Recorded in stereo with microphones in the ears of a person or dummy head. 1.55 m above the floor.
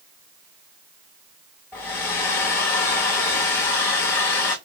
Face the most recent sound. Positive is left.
turn(degrees=15)  # may be behind; listen again after turning